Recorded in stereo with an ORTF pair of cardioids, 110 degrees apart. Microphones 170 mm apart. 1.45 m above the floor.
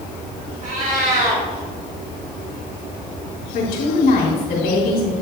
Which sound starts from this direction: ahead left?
A woman speaking, at 3.5 s.